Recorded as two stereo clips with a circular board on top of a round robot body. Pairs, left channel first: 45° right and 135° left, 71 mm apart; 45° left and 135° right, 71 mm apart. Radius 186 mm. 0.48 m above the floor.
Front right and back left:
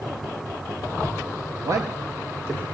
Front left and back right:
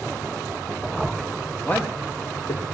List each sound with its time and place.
1.6 s a man speaking: 110° left, 1.3 m; by 2.7 s 75° left, 2 m